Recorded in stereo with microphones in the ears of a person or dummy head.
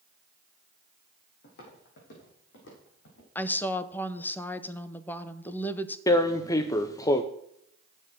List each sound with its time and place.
1.4 s footsteps: 50° left (ahead or behind), 3 m; by 3.2 s 70° left (ahead or behind), 5.5 m
3.4 s a woman speaking: 10° left (ahead or behind), 0.8 m
6.1 s tearing paper: 20° left (ahead or behind), 0.6 m